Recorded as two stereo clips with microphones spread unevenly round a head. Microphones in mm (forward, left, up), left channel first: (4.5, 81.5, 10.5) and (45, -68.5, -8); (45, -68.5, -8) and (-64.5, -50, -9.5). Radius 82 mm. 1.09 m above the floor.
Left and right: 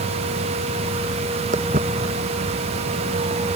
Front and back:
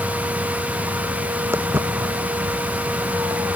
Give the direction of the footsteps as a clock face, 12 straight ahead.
4 o'clock.